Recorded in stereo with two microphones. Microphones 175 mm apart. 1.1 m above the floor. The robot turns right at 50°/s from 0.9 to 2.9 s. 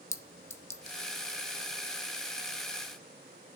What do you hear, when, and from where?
0.1 s a clink: 15° left (ahead or behind), 0.6 m; by 1.0 s 10° left (ahead or behind), 0.6 m